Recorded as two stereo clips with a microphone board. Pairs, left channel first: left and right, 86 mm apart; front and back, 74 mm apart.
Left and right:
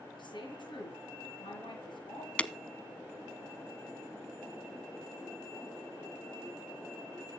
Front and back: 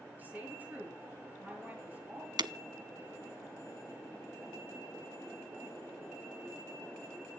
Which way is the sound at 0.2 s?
115° left.